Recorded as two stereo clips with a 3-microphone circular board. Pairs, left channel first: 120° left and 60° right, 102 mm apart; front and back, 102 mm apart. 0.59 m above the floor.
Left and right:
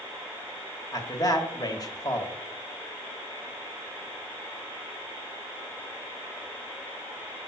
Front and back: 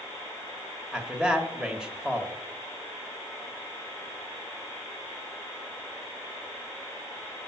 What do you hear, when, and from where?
0.9 s a man speaking: 105° left, 1.2 m